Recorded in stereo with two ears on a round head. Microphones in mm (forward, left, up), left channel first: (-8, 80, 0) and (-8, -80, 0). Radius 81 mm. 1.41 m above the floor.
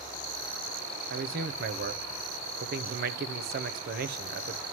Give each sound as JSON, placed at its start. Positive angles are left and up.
{"t": 1.1, "sound": "a man speaking", "side_deg": -55, "distance_m": 0.7}